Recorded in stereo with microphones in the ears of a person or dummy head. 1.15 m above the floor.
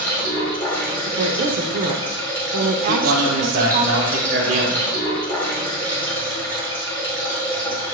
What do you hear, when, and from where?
0.0 s running water: 20° left (ahead or behind), 1.6 m
1.1 s a woman speaking: 55° right (ahead or behind), 0.6 m
2.9 s a man speaking: 45° right (ahead or behind), 0.8 m